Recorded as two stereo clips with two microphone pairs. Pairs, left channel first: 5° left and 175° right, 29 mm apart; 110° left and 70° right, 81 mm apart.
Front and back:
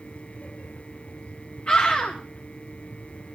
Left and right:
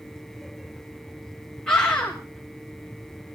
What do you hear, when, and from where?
1.7 s a scream: 25° left, 2.5 m